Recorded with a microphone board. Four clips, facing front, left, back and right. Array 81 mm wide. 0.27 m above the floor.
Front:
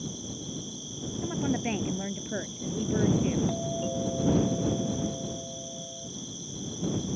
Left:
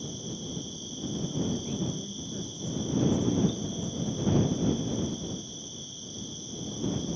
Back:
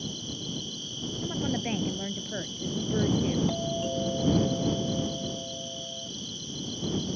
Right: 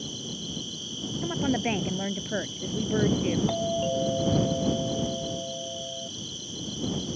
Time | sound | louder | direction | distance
0.0 | an insect | even, even | 120° right | ?
1.2 | a woman speaking | right 7 dB, front 2 dB | 85° right | ?
3.5 | a doorbell | right 7 dB, back 1 dB | 95° right | ?